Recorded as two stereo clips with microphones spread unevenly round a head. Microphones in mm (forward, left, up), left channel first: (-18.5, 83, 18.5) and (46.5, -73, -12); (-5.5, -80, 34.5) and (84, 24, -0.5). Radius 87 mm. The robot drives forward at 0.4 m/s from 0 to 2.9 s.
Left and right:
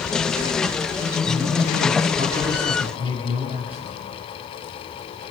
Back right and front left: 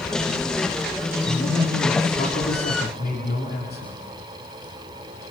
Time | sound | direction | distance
1.2 | a man speaking | 120° right | 4 m